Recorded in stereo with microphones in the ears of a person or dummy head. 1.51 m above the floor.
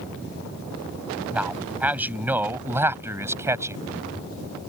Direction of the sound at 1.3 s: 5° right (ahead or behind).